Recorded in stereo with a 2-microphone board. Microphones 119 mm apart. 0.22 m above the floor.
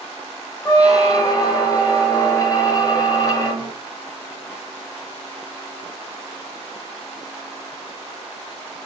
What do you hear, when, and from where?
0.7 s a squeak: 30° left (ahead or behind), 0.8 m